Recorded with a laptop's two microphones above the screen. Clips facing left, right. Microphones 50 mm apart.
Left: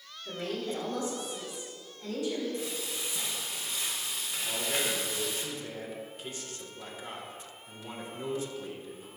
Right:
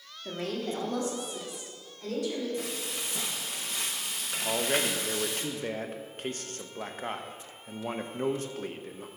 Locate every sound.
0.2 s a woman speaking: 65° right (ahead or behind), 1.5 m; by 2.5 s 70° right (ahead or behind), 3.5 m
2.6 s frying: 60° right (ahead or behind), 0.9 m
4.5 s a man speaking: 50° right (ahead or behind), 0.6 m